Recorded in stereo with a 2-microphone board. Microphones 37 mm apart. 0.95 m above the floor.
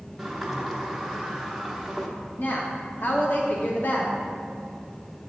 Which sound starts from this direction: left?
A woman speaking, at 2.4 s.